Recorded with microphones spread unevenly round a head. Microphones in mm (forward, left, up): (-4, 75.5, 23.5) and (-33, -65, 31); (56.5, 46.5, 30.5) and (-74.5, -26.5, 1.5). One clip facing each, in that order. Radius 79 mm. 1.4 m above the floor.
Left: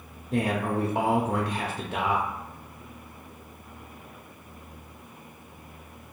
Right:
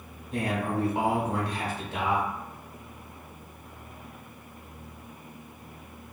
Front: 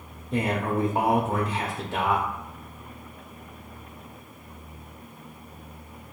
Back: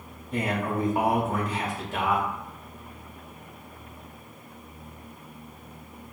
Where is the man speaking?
95° left, 0.5 m.